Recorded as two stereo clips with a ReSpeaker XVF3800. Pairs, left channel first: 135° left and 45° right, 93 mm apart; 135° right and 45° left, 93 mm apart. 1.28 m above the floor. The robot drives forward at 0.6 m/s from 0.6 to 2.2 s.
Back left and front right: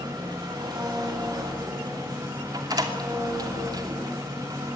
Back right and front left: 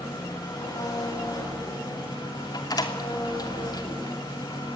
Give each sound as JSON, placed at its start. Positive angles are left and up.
{"t": 0.0, "sound": "an engine running", "azimuth_deg": -90, "distance_m": 8.5}
{"t": 2.5, "sound": "a door slam", "azimuth_deg": -90, "distance_m": 2.5}